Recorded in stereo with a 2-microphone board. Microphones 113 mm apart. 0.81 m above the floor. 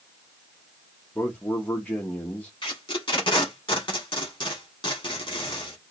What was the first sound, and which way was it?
A man speaking, 10° left (ahead or behind).